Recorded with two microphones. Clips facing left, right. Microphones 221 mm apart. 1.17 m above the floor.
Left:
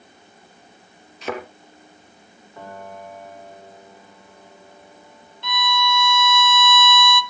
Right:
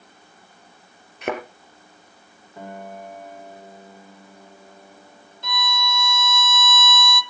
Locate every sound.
1.2 s a thud: 60° right (ahead or behind), 3.5 m
2.6 s a piano: 20° right (ahead or behind), 4 m
5.4 s a violin: 45° right (ahead or behind), 1.4 m